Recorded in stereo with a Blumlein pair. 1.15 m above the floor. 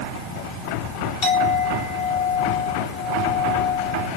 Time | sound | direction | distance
1.2 | a clink | 25° left | 1.8 m